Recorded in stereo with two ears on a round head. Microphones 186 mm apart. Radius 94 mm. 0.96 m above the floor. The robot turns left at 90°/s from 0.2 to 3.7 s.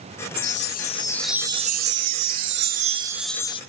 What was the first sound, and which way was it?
A chime, 80° left.